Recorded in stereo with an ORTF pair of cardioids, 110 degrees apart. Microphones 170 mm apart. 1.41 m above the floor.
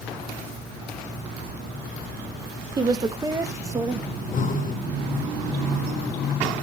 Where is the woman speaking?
25° right, 1.2 m; by 4.0 s 20° right, 2.5 m.